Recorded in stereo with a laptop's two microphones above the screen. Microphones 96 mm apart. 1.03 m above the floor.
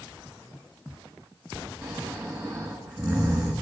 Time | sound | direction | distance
1.8 | snoring | 30° right (ahead or behind) | 1.7 m